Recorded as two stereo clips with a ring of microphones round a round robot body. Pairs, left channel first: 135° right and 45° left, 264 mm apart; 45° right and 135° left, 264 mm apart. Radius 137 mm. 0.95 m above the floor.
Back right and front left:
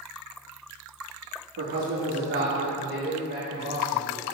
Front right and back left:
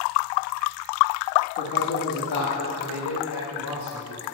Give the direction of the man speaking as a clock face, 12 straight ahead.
12 o'clock.